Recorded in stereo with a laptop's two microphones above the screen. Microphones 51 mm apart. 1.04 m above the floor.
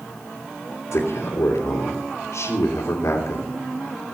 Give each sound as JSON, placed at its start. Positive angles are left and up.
{"t": 0.9, "sound": "a man speaking", "side_deg": 75, "distance_m": 2.5}